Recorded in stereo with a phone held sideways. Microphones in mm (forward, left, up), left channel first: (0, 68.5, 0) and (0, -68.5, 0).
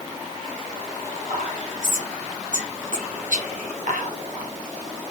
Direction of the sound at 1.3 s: 70° right (ahead or behind).